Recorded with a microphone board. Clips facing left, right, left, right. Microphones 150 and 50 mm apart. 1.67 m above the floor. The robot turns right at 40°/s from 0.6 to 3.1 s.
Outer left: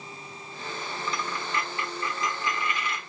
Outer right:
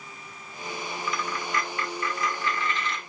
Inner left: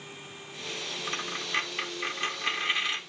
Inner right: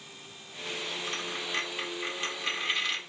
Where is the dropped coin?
30° left (ahead or behind), 1.2 m; by 3.0 s 10° left (ahead or behind), 1.2 m.